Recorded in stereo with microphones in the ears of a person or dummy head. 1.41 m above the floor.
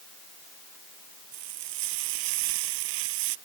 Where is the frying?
75° right (ahead or behind).